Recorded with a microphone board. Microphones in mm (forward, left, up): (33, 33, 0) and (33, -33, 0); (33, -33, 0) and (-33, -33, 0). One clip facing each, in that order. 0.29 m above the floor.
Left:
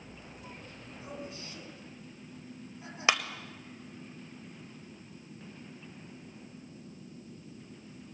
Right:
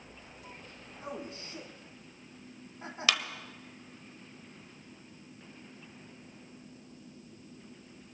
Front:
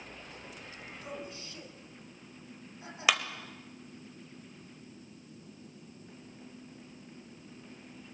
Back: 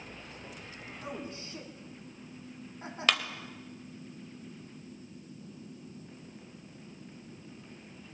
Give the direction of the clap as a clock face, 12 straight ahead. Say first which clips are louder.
Left 3 dB, front 1 dB; 10 o'clock.